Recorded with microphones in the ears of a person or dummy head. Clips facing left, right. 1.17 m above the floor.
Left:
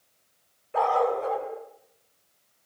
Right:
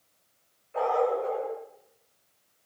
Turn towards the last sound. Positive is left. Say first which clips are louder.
# left 1 dB
turn(degrees=75)  # may be behind; listen again after turning